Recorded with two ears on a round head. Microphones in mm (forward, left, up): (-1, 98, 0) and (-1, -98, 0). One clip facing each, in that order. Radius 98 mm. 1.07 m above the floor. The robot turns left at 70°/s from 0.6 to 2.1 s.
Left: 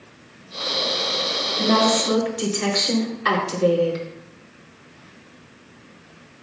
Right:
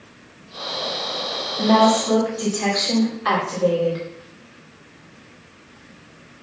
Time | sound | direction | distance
1.6 | a woman speaking | 175° left | 3 m